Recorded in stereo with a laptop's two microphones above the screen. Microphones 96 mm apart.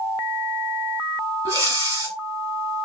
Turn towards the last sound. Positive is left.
turn(degrees=-35)  # may be behind; listen again after turning